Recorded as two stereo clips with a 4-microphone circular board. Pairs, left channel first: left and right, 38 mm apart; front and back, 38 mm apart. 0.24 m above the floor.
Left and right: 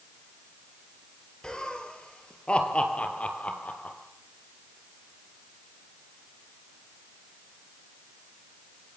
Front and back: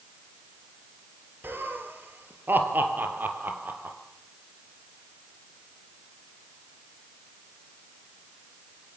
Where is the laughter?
160° left, 4.5 m; by 4.0 s 140° left, 4.5 m.